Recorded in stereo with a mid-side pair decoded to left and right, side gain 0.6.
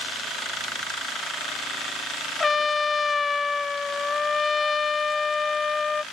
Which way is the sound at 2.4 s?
25° left.